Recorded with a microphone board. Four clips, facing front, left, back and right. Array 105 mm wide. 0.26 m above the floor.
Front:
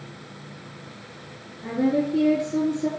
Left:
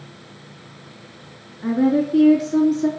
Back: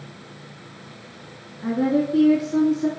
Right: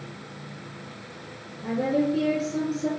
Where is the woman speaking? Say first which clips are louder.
Left 6 dB, back 2 dB; 125° left, 3 m.